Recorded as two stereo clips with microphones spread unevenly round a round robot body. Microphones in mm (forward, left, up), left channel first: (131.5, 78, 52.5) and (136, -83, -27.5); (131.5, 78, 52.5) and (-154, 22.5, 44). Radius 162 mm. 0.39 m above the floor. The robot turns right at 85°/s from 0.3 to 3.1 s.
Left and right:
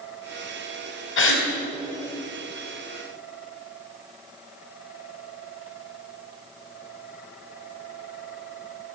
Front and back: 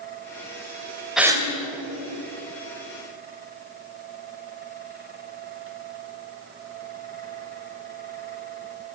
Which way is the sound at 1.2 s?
100° left.